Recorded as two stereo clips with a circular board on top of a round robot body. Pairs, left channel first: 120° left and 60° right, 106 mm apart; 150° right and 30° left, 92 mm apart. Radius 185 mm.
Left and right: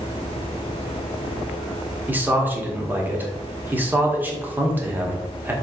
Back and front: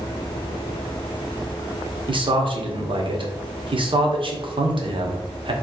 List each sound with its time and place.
2.1 s a man speaking: 15° left, 1.8 m